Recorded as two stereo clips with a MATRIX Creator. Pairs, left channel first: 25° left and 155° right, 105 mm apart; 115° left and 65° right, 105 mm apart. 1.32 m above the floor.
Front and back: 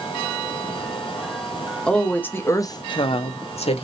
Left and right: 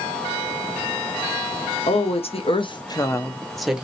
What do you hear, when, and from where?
1.9 s a woman speaking: 105° left, 0.9 m; by 3.8 s 15° left, 0.7 m